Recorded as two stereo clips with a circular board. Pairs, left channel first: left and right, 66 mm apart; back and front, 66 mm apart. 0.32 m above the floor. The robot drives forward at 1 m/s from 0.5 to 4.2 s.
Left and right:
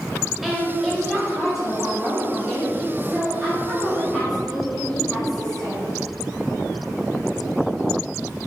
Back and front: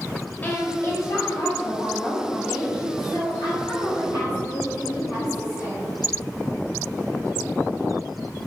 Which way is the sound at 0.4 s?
170° right.